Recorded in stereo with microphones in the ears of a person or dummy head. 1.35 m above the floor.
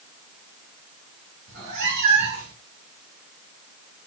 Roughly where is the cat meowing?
Right.